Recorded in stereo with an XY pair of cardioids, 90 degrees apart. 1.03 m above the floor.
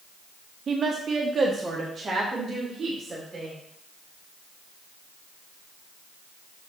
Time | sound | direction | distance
0.7 | a woman speaking | 55° right | 0.8 m